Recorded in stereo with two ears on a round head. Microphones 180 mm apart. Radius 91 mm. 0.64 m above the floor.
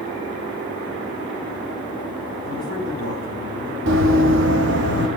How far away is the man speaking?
About 4.5 m.